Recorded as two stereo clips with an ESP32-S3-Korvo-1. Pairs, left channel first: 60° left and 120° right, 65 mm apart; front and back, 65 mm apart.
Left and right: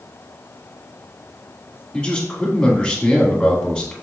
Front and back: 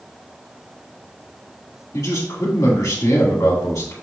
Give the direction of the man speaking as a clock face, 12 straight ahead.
12 o'clock.